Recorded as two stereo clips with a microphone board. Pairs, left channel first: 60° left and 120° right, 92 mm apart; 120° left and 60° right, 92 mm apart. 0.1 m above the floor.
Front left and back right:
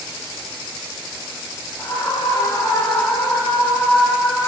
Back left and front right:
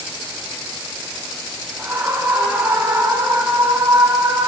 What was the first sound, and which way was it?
A scream, 10° left.